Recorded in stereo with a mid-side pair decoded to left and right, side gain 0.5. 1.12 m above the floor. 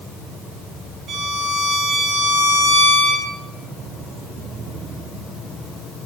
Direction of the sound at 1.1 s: 60° right.